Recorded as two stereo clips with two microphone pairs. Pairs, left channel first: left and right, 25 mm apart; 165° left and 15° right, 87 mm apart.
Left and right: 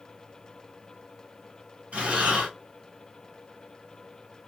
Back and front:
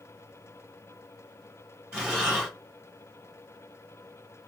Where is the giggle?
I don't hear a giggle.